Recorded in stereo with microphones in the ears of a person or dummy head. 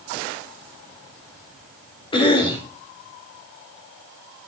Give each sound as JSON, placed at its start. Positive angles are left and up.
{"t": 2.1, "sound": "a cough", "side_deg": 30, "distance_m": 4.0}